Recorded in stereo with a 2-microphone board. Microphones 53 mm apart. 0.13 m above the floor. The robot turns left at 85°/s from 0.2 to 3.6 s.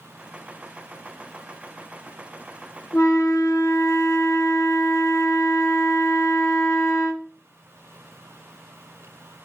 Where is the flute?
125° left, 0.7 m; by 7.3 s 65° left, 0.7 m.